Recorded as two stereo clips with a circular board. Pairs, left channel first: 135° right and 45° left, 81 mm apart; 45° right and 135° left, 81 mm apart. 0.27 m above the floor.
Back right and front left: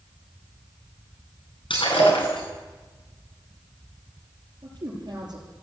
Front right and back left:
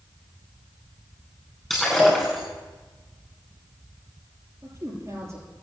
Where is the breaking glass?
135° right, 9.5 m.